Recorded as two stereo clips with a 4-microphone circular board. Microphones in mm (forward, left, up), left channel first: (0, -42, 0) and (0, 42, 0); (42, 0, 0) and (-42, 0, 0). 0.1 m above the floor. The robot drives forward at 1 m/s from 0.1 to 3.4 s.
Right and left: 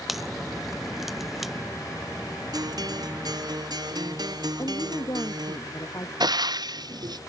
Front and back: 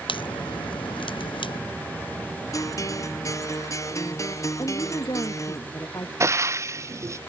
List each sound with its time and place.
0.1 s a crack: straight ahead
2.5 s a guitar: 50° left
4.6 s a woman speaking: 45° right
6.2 s frying: 125° left